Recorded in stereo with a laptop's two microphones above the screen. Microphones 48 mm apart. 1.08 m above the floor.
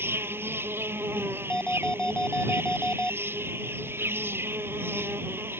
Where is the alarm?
15° left (ahead or behind).